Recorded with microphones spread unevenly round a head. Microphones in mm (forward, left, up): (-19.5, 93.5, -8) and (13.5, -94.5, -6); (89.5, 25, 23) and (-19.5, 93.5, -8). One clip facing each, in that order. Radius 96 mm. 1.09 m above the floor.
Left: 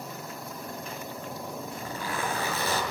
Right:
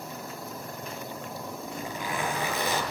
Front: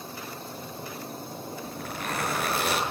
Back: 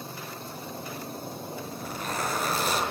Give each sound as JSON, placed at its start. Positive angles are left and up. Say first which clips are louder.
{"t": 1.6, "sound": "a zipper", "louder": "right 1 dB, front 2 dB", "azimuth_deg": -5, "distance_m": 7.5}